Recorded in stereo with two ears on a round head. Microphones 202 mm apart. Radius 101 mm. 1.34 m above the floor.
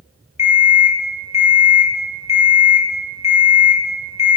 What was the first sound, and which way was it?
An alarm clock, 30° left (ahead or behind).